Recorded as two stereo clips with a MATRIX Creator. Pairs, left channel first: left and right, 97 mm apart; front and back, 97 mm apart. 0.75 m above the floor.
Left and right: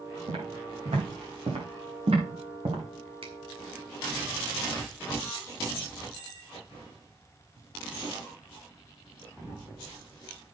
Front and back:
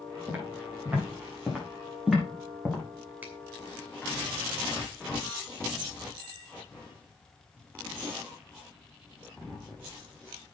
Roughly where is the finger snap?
Right.